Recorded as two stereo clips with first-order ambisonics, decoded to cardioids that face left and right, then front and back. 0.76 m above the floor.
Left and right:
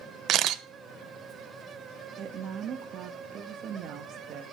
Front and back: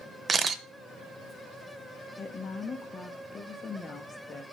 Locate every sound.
0.3 s a camera shutter: 115° right, 0.6 m
2.2 s a woman speaking: 60° right, 0.8 m